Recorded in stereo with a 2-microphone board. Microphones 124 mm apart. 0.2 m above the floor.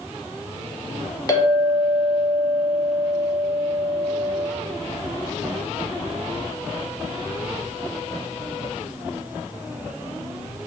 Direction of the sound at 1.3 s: 30° left (ahead or behind).